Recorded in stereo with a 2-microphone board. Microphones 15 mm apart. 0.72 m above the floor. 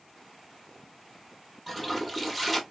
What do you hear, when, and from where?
1.7 s a toilet flushing: centre (ahead or behind), 0.7 m